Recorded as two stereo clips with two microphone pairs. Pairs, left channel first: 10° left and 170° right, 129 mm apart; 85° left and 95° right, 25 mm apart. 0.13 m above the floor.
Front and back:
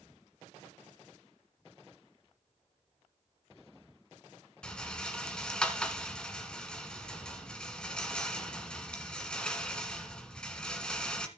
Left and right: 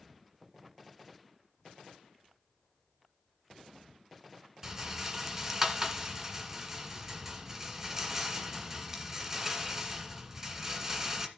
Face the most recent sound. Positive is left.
turn(degrees=-65)